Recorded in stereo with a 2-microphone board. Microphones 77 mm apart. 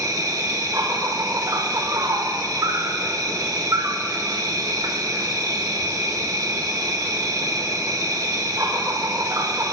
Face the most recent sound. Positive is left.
turn(degrees=-55)  # may be behind; listen again after turning